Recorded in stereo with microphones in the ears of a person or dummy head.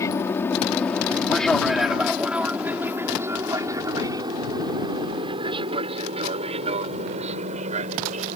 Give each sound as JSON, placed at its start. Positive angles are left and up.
{"t": 0.0, "sound": "an aircraft", "side_deg": 15}